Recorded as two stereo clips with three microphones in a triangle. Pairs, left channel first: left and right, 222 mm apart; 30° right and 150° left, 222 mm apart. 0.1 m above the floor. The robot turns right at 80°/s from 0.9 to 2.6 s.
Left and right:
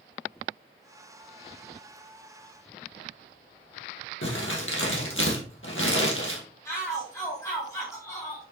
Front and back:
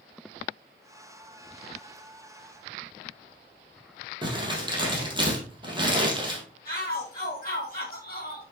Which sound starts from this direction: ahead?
A shout, at 6.7 s.